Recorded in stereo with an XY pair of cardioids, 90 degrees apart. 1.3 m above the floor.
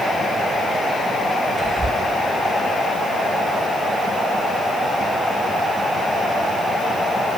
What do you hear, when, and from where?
1.6 s whispering: 50° right, 3 m